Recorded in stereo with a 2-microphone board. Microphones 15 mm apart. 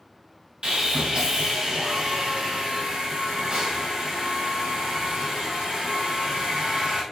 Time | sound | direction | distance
0.6 | sawing | 65° right (ahead or behind) | 3 m